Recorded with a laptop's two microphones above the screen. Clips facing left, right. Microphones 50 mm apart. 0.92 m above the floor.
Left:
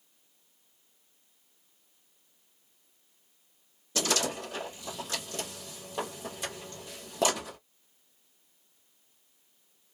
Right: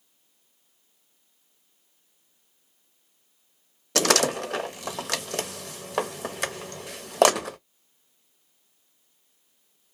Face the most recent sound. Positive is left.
turn(degrees=-75)  # may be behind; listen again after turning